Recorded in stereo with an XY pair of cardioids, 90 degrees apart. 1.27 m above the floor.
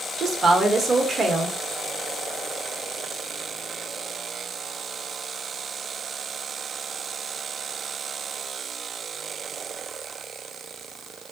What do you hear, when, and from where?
0.2 s a woman speaking: 55° right, 0.9 m